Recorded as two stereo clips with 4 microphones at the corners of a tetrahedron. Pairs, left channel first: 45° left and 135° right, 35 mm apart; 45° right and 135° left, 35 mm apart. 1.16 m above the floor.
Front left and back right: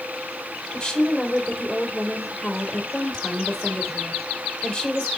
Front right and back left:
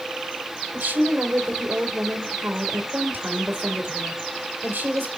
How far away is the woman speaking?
About 3.5 m.